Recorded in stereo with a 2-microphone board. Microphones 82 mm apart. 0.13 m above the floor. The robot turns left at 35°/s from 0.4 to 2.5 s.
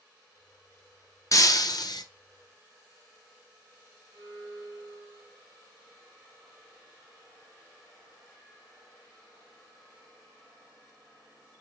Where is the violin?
50° right (ahead or behind), 0.8 m.